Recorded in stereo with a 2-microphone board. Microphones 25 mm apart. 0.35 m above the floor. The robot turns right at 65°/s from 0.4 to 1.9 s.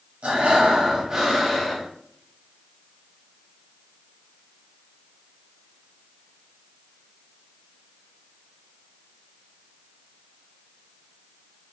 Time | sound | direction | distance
0.2 | breathing | 80° right | 1.1 m